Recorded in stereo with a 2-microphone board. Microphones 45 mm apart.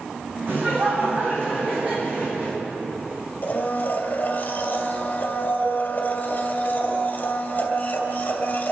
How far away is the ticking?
No ticking in this recording.